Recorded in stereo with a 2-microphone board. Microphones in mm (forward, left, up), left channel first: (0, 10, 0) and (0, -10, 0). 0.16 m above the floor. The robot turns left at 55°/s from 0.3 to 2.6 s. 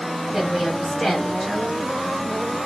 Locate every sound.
0.3 s a woman speaking: 155° right, 1.9 m; by 1.8 s 120° left, 1.9 m